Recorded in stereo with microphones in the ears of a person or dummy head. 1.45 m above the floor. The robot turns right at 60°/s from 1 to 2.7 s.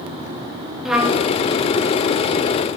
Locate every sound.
0.8 s a trumpet: centre (ahead or behind), 2.5 m; by 1.3 s 15° left (ahead or behind), 2.5 m